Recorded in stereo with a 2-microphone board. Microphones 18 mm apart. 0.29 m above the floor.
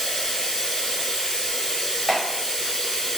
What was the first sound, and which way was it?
Running water, 65° left (ahead or behind).